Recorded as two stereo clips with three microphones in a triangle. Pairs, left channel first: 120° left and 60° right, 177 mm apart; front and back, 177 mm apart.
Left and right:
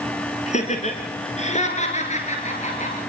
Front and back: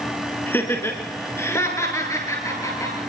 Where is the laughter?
75° left, 2.5 m; by 3.0 s 70° left, 5 m.